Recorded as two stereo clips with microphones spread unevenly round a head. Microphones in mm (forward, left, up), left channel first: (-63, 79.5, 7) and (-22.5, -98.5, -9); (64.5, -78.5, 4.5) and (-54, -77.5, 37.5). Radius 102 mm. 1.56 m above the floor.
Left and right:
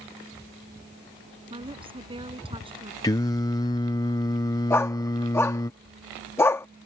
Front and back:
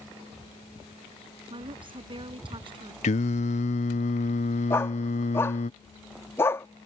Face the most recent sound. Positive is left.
turn(degrees=90)